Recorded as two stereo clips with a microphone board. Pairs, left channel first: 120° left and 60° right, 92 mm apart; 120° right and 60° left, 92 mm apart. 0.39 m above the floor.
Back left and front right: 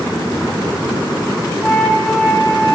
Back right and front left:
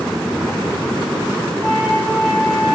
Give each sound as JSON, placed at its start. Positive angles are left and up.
{"t": 1.6, "sound": "a flute", "azimuth_deg": -150, "distance_m": 4.0}